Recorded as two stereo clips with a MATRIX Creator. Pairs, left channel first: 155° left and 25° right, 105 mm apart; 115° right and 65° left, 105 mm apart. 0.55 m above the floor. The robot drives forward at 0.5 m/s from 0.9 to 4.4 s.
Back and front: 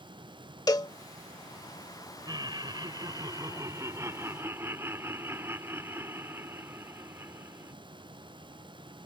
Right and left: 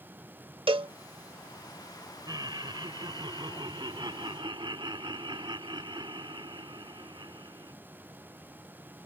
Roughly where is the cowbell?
Left.